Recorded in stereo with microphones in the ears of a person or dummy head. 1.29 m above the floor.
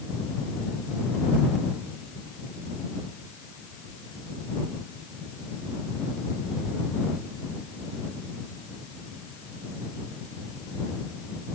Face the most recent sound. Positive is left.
No sound to turn to.